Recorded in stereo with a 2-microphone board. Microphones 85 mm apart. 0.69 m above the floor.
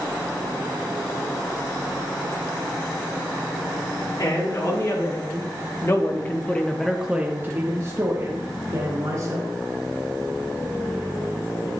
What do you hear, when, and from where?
4.2 s a man speaking: 45° left (ahead or behind), 2 m; by 9.5 s 50° right (ahead or behind), 2 m